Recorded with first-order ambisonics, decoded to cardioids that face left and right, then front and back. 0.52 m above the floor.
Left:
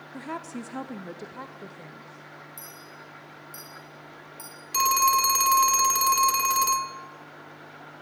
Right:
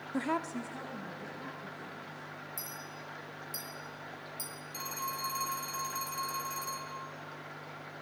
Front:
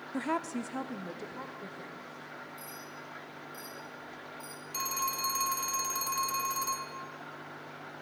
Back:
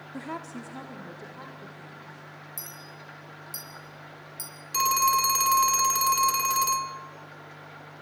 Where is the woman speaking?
60° right, 0.7 m; by 2.2 s 85° left, 2.5 m.